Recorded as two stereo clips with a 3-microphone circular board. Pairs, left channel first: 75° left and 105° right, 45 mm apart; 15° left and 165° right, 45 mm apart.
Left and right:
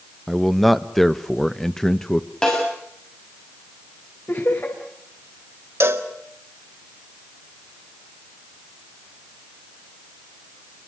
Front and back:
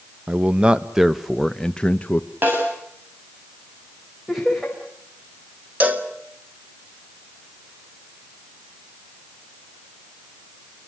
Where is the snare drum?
145° left, 8.5 m.